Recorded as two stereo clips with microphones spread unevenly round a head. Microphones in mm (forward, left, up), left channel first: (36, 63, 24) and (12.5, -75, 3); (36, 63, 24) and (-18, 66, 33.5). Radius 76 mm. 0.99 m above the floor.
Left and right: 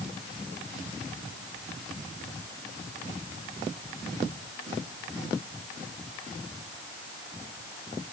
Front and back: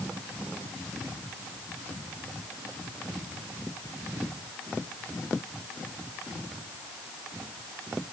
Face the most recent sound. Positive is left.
No sound to turn to.